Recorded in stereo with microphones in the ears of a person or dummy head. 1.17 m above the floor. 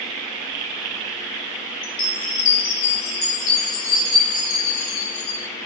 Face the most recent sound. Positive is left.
turn(degrees=75)  # may be behind; listen again after turning